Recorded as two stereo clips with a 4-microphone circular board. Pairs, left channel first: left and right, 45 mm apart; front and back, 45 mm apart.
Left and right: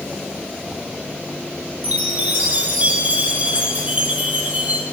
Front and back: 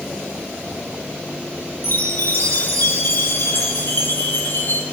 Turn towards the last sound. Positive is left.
turn(degrees=-35)